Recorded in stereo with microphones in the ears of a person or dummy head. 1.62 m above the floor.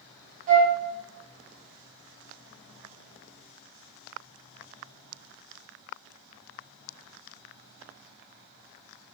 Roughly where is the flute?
Right.